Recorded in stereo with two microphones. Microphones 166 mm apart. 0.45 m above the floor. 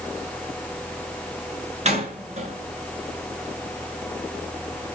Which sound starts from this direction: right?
A door slam, at 1.9 s.